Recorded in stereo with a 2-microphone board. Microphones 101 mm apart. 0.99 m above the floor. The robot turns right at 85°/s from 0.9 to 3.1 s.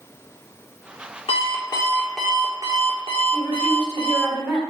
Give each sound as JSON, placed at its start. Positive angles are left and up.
{"t": 1.3, "sound": "an alarm clock", "azimuth_deg": 100, "distance_m": 1.4}
{"t": 3.3, "sound": "a woman speaking", "side_deg": 15, "distance_m": 3.5}